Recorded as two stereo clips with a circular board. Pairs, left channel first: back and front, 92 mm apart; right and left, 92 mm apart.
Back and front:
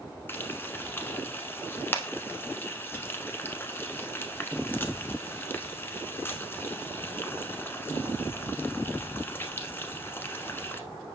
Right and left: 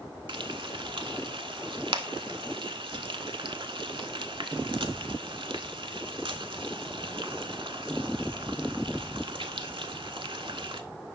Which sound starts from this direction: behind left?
Frying, at 0.3 s.